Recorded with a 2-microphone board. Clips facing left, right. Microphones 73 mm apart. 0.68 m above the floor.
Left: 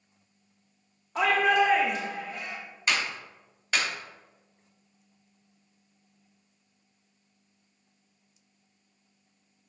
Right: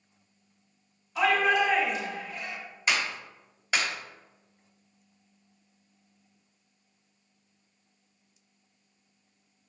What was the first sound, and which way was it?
A shout, 45° left (ahead or behind).